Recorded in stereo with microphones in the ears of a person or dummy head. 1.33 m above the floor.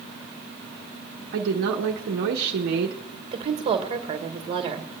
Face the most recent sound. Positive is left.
turn(degrees=-35)  # may be behind; listen again after turning